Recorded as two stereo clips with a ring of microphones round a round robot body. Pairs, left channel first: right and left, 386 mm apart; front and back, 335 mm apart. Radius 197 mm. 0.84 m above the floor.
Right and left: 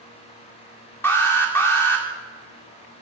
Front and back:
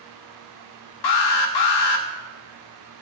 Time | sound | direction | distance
1.0 | an alarm | 5° right | 2.0 m